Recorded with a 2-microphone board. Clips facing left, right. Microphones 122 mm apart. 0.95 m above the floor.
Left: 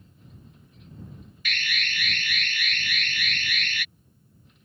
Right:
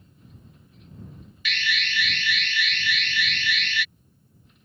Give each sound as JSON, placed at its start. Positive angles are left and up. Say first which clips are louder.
{"t": 1.4, "sound": "an alarm", "louder": "right 3 dB", "side_deg": 45}